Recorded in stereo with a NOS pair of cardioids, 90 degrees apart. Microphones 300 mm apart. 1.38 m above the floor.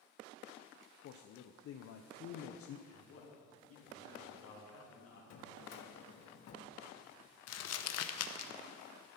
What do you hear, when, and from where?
1.0 s a man speaking: 50° left, 0.6 m
2.9 s a man speaking: 50° left, 3 m
5.3 s a drawer: 60° left, 1.4 m
7.5 s crumpling: 55° left, 0.7 m